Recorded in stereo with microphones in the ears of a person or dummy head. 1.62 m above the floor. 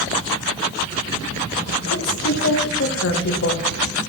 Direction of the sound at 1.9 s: 65° left (ahead or behind).